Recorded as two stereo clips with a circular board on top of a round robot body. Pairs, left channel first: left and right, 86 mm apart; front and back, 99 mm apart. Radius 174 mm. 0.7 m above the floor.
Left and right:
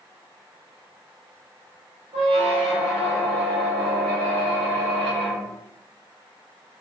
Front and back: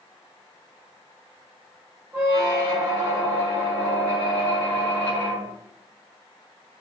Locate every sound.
2.1 s a squeak: 110° right, 0.6 m